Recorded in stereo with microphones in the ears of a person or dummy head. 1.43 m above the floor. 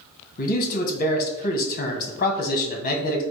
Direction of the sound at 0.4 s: 45° left (ahead or behind).